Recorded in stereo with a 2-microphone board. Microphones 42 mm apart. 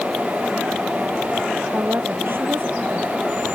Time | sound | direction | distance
1.7 | a woman speaking | 60° right (ahead or behind) | ?